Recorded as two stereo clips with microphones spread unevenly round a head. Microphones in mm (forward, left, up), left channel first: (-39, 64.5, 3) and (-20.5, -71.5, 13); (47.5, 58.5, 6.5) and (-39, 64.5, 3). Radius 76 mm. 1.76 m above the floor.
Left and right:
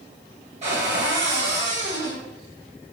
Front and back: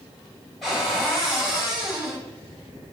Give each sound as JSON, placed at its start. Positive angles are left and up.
{"t": 0.6, "sound": "a cupboard door", "azimuth_deg": -90, "distance_m": 1.3}